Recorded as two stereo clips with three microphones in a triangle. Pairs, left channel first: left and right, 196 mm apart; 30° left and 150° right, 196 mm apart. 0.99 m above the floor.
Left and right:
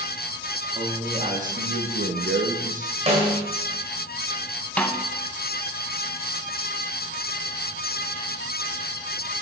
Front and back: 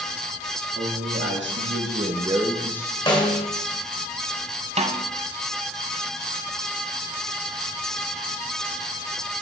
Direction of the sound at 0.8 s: 150° right.